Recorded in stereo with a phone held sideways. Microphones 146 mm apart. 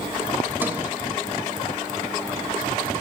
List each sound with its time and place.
0.6 s a sliding door: 15° right (ahead or behind), 2.5 m